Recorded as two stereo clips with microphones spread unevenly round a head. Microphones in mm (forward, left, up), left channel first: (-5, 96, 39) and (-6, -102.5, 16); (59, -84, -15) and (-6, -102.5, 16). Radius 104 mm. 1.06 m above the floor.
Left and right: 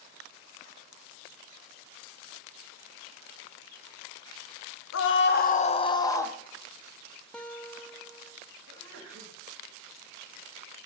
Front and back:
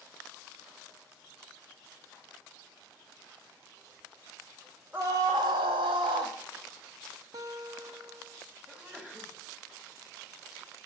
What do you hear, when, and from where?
4.9 s a scream: 105° left, 0.6 m; by 6.3 s 170° left, 1.0 m
7.3 s a guitar: 170° left, 0.7 m
8.7 s a sneeze: 80° right, 1.6 m